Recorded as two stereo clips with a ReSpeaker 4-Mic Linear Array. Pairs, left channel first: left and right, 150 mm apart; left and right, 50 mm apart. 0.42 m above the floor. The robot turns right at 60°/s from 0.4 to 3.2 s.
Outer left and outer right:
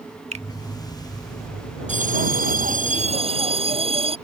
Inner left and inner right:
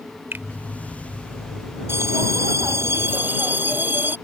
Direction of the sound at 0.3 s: 50° right (ahead or behind).